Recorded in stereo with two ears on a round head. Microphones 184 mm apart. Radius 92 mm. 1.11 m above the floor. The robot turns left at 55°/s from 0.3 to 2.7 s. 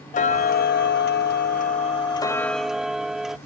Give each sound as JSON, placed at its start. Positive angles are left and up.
{"t": 0.1, "sound": "ticking", "azimuth_deg": 130}